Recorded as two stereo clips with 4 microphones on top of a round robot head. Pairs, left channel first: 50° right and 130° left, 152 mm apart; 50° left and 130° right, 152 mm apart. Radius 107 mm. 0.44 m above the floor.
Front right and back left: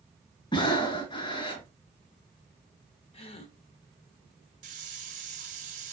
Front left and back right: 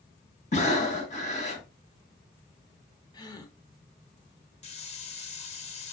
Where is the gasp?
10° right, 1.1 m.